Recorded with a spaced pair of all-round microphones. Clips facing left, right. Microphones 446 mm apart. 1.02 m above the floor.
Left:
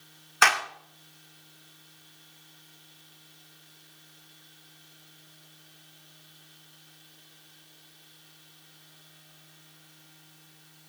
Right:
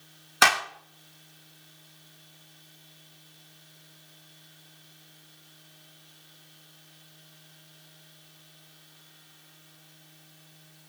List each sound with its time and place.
0.4 s a clap: 55° right (ahead or behind), 0.6 m